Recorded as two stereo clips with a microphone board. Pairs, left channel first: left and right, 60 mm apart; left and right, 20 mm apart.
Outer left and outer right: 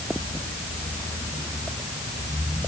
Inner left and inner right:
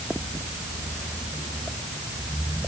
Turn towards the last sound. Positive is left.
No sound to turn to.